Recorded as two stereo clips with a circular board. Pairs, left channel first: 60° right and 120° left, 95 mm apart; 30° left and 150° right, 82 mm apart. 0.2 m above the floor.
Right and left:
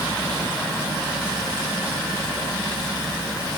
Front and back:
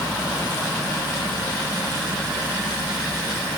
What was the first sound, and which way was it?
Only background noise.